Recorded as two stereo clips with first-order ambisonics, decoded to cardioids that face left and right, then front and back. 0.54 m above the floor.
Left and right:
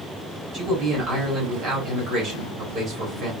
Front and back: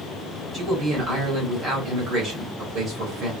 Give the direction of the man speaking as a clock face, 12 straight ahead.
4 o'clock.